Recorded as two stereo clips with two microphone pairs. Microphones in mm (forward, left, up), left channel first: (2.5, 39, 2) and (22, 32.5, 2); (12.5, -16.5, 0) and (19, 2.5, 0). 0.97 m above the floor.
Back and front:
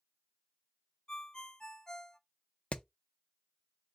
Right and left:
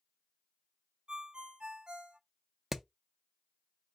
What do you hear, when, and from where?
1.1 s a ringtone: 110° left, 0.7 m
2.7 s hammering: 150° left, 0.5 m